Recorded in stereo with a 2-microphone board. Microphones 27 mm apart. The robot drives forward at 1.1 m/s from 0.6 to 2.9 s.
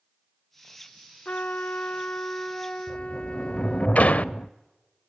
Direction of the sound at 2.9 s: 60° left (ahead or behind).